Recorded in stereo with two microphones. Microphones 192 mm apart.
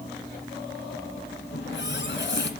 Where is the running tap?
75° left (ahead or behind), 2.5 m.